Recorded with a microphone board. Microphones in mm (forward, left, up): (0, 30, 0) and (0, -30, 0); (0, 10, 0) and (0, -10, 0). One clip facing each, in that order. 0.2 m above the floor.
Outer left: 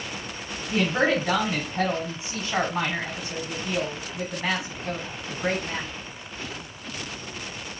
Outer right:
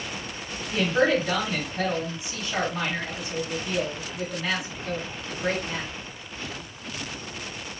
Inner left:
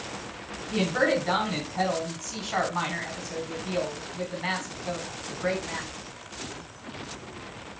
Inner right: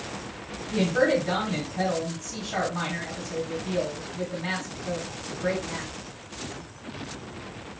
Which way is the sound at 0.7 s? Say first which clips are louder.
Outer right 1 dB, inner right 2 dB; 35° left (ahead or behind).